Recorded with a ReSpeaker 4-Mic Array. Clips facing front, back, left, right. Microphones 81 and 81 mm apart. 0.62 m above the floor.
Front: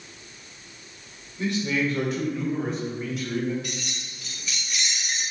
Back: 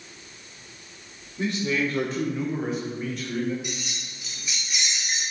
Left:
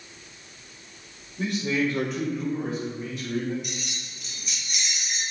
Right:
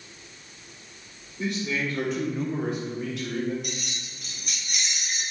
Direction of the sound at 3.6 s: 110° right.